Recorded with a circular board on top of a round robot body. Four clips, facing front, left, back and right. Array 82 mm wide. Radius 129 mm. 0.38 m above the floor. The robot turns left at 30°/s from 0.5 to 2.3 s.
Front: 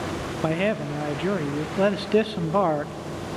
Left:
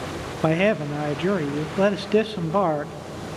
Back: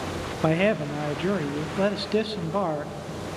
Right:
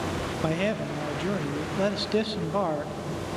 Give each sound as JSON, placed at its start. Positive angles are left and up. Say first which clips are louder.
{"t": 0.4, "sound": "a man speaking", "louder": "left 8 dB, back 2 dB", "azimuth_deg": 105, "distance_m": 0.8}